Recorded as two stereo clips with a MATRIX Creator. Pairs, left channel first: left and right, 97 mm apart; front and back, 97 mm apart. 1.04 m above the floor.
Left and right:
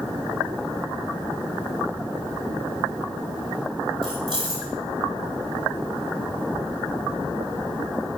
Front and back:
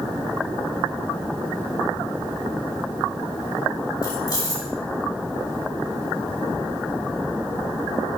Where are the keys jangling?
55° right, 2.5 m.